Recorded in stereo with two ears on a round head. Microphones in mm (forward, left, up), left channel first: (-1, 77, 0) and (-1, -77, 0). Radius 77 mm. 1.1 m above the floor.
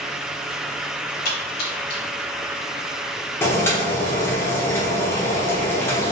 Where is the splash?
60° left (ahead or behind), 1.2 m.